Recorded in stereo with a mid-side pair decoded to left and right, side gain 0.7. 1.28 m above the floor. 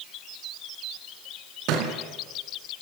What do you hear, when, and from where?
1.7 s a thud: 65° right, 3.5 m